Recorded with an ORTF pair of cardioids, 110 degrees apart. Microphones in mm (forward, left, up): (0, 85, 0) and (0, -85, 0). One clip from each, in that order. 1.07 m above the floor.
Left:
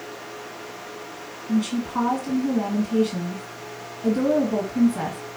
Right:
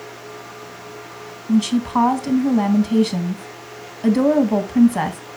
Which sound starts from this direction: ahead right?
A woman speaking, at 1.5 s.